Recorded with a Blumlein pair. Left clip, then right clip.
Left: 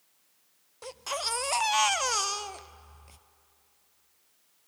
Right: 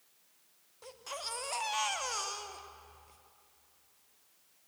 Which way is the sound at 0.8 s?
65° left.